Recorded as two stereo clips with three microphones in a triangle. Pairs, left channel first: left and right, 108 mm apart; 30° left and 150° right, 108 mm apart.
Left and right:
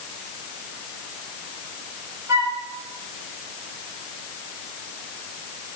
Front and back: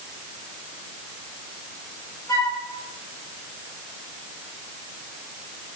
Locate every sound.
2.3 s a flute: 30° right, 2.5 m